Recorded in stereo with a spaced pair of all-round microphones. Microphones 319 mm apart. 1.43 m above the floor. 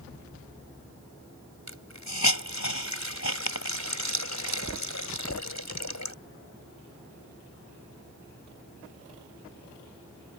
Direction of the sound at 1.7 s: 60° left (ahead or behind).